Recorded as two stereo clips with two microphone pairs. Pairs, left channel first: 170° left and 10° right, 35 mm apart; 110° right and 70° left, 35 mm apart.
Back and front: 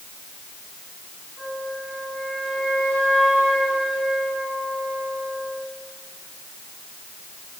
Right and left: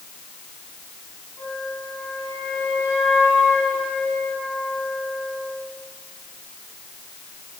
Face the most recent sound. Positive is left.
turn(degrees=-110)